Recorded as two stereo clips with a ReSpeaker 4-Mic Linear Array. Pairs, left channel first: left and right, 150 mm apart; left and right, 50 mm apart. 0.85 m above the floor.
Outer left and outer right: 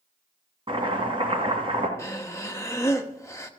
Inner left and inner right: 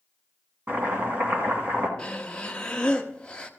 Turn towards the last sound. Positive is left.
turn(degrees=20)  # may be behind; listen again after turning